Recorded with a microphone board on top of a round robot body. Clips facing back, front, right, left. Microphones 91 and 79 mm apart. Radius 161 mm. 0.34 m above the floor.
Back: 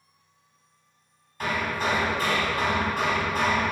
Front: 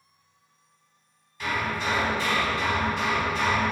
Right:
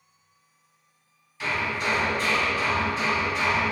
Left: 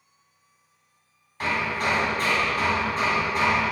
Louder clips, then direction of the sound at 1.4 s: Back 1 dB, left 2 dB; 135° left.